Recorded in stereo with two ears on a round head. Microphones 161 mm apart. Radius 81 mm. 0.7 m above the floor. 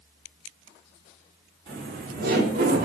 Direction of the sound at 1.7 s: 55° right (ahead or behind).